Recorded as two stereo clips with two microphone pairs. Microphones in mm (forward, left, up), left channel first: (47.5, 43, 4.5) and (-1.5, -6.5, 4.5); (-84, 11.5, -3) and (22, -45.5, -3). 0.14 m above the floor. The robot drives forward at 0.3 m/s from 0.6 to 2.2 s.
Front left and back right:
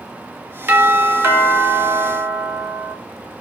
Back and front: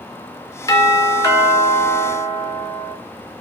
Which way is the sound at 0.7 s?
160° right.